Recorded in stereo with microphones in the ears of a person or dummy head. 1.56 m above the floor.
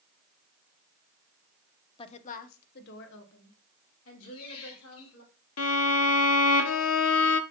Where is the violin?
85° left, 0.6 m.